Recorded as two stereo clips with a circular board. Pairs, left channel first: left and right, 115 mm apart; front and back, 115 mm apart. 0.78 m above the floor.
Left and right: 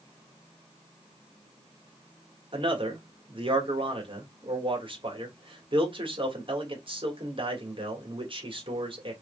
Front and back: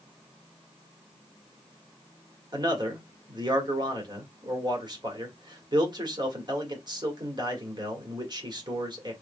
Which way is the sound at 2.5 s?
130° right.